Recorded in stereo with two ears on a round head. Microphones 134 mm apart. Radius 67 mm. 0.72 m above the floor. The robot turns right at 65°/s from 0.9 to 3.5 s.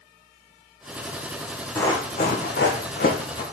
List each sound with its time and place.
1.8 s running footsteps: 10° left (ahead or behind), 2 m; by 3.4 s 35° left (ahead or behind), 2.5 m